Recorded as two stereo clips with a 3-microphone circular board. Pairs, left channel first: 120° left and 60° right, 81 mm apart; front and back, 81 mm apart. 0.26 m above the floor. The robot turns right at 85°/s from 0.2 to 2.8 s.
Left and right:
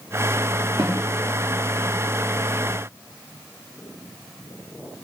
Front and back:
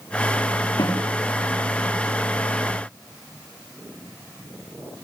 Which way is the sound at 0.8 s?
30° right.